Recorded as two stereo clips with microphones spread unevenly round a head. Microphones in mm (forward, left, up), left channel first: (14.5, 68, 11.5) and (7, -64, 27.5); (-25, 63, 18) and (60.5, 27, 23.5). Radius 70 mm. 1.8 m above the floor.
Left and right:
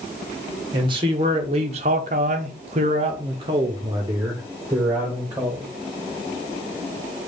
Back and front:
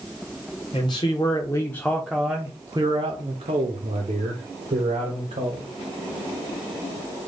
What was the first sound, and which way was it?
A man speaking, 145° right.